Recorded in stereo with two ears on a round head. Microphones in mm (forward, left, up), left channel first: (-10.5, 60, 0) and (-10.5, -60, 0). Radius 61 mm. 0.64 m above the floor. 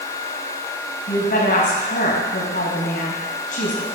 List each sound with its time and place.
1.1 s a woman speaking: 70° left (ahead or behind), 4 m